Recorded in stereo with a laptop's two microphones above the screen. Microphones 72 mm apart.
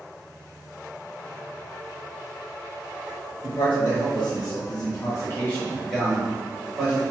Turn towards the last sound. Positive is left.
turn(degrees=-25)  # may be behind; listen again after turning